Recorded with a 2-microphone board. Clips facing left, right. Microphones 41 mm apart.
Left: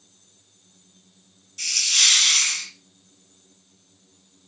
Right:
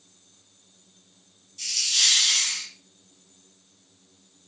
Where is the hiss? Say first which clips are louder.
Left 4 dB; 80° left, 0.6 m.